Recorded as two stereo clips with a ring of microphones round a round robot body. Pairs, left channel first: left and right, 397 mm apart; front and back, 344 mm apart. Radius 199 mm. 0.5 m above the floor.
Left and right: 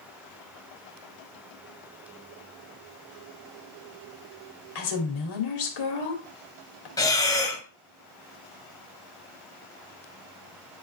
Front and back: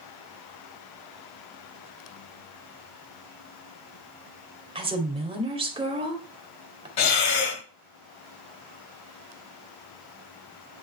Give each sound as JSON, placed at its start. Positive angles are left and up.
{"t": 4.8, "sound": "a woman speaking", "azimuth_deg": 105, "distance_m": 2.5}
{"t": 7.0, "sound": "breathing", "azimuth_deg": 10, "distance_m": 1.6}